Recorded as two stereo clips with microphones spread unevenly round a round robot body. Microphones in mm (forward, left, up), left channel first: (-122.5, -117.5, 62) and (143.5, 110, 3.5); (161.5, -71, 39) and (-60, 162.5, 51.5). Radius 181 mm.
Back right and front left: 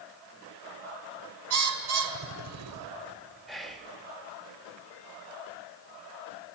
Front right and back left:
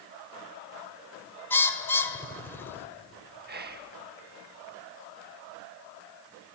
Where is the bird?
35° left, 1.4 m.